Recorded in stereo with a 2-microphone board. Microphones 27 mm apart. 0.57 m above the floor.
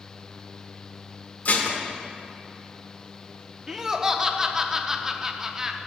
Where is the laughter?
15° right (ahead or behind), 0.6 m.